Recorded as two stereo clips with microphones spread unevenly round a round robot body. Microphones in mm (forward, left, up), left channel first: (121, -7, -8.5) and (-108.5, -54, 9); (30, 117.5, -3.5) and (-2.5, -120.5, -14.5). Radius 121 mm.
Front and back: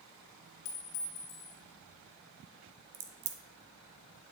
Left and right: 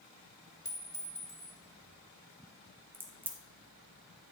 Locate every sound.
0.7 s a clink: 5° left, 1.7 m
2.9 s a crack: straight behind, 0.8 m